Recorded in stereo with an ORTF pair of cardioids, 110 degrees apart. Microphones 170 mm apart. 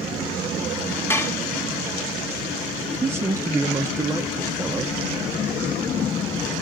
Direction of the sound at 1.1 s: 15° left.